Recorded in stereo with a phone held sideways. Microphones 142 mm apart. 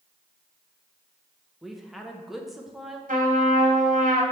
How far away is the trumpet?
About 1.4 m.